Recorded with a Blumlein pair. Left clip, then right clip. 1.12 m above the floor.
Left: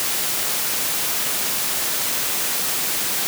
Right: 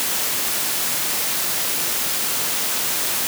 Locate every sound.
Only background noise.